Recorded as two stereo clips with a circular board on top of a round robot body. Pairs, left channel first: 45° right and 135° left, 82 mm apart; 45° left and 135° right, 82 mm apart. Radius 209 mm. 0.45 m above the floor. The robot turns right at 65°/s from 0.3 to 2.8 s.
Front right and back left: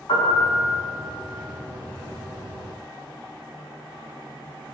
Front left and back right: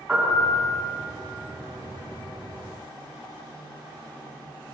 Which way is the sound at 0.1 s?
60° right.